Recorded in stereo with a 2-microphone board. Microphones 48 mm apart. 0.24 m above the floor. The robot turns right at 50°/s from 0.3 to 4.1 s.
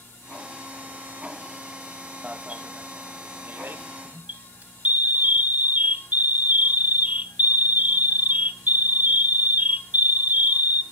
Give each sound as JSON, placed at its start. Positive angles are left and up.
{"t": 2.2, "sound": "an alarm", "azimuth_deg": -150, "distance_m": 0.8}